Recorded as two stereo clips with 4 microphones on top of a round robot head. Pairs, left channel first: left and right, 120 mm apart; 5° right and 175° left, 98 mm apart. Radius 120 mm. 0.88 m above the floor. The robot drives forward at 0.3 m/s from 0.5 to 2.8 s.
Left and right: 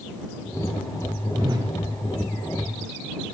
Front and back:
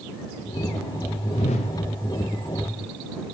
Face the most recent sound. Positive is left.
turn(degrees=-75)